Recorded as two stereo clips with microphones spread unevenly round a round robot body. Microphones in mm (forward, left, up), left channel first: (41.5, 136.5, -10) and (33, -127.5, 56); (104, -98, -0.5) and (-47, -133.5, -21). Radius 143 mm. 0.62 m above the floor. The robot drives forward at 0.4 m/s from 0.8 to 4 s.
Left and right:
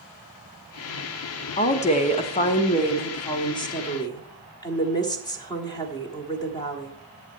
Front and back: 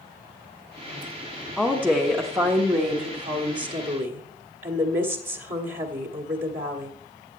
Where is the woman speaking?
110° left, 0.9 m; by 6.9 s 155° left, 1.5 m.